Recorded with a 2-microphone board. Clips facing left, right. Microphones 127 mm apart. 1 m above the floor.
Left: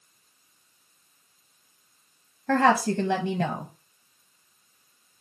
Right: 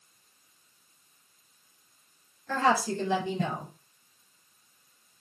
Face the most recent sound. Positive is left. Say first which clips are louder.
# left 5 dB
turn(degrees=70)  # may be behind; listen again after turning